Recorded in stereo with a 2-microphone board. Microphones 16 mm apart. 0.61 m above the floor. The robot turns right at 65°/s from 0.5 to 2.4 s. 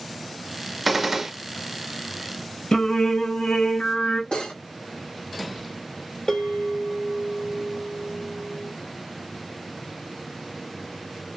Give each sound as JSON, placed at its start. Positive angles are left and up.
{"t": 0.8, "sound": "a gunshot", "azimuth_deg": 180, "distance_m": 0.7}
{"t": 2.7, "sound": "singing", "side_deg": 70, "distance_m": 0.9}
{"t": 4.3, "sound": "cutlery clinking", "side_deg": 60, "distance_m": 1.8}
{"t": 6.3, "sound": "a bell", "side_deg": 40, "distance_m": 2.0}